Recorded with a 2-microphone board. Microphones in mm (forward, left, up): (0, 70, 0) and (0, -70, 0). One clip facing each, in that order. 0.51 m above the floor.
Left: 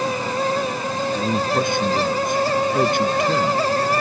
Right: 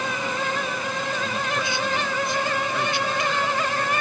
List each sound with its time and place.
1.1 s a man speaking: 50° left (ahead or behind)